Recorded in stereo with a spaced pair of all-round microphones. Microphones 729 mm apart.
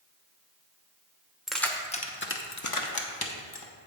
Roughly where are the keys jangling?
Centre.